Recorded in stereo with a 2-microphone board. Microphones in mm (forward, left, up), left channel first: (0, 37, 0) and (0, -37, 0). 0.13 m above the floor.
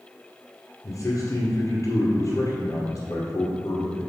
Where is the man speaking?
45° left (ahead or behind), 2.0 m.